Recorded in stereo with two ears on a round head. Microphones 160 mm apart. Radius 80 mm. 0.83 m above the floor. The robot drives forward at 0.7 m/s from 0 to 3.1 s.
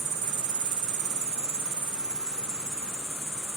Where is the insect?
35° right (ahead or behind), 0.8 m; by 3.6 s 15° right (ahead or behind), 1.9 m.